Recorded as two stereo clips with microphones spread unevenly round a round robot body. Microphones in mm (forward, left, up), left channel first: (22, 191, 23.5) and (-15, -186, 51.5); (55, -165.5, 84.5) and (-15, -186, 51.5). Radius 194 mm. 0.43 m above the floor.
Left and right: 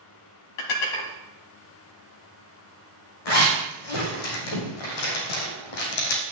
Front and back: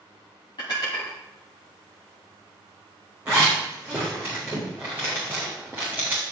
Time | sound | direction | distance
0.6 | dishes clattering | 70° left | 2 m
3.2 | a zipper | 110° left | 4 m